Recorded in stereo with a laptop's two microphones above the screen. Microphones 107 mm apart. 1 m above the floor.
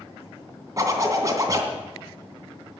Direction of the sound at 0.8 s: 35° right (ahead or behind).